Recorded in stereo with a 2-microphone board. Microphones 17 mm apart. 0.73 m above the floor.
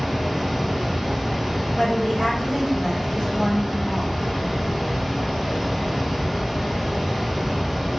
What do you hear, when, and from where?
0.0 s running water: 5° right (ahead or behind), 0.8 m
1.8 s a woman speaking: 20° left (ahead or behind), 1.3 m